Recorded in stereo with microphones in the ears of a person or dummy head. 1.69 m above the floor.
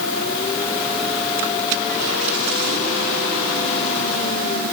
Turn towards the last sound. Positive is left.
No sound to turn to.